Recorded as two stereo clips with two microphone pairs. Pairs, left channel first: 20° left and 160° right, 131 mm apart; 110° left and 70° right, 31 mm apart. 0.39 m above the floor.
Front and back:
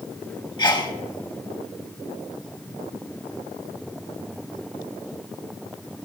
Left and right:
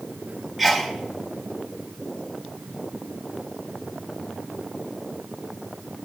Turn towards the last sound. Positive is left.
turn(degrees=15)